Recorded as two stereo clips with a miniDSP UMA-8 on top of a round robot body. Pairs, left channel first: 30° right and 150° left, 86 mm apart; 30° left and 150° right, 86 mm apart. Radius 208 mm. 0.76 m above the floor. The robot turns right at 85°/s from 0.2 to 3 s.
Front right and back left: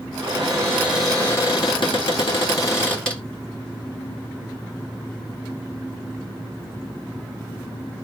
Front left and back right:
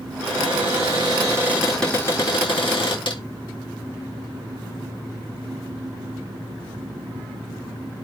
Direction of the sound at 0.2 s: 175° left.